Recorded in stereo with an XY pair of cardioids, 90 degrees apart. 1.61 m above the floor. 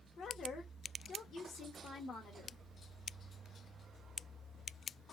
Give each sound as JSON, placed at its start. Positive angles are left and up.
{"t": 0.2, "sound": "a woman speaking", "azimuth_deg": 70, "distance_m": 1.4}